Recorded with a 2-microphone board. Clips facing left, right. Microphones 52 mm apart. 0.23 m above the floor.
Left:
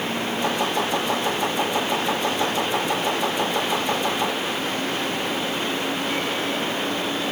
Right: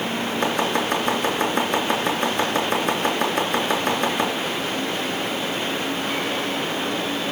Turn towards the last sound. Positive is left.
turn(degrees=-65)  # may be behind; listen again after turning